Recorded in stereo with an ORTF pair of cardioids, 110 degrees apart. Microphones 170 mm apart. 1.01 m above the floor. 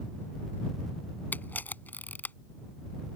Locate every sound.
1.3 s a camera shutter: 10° left